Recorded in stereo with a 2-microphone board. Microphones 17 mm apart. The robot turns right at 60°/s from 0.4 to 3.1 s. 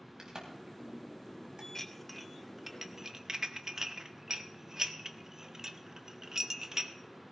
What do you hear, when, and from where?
0.2 s a crack: 45° right (ahead or behind), 3.5 m; by 1.6 s 60° right (ahead or behind), 3.5 m
1.8 s dishes clattering: 15° left (ahead or behind), 0.7 m; by 6.9 s 30° right (ahead or behind), 0.7 m